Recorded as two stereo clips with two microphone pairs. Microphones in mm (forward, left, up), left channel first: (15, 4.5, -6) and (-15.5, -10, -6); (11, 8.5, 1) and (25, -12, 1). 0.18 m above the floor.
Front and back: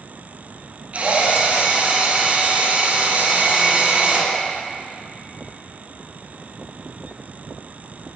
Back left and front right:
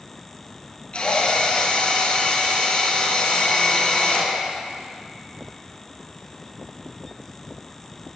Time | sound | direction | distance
0.9 | a drill | 165° left | 5.5 m